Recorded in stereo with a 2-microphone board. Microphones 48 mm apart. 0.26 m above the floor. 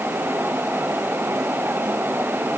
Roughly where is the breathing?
No breathing in this recording.